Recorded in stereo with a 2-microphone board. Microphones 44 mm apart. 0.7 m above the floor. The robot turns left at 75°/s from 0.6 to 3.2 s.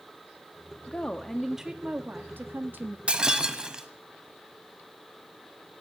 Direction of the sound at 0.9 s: 35° left.